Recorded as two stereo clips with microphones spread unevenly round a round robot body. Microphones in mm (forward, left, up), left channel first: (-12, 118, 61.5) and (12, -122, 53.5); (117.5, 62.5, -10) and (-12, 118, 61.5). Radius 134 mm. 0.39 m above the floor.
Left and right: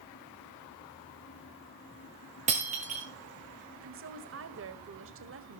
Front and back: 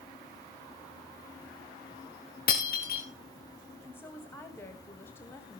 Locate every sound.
2.5 s breaking glass: 20° right, 3 m
3.8 s a woman speaking: 80° right, 1.7 m